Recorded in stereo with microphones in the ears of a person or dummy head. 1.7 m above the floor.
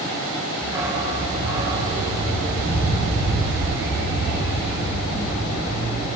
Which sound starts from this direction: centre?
A dog barking, at 0.6 s.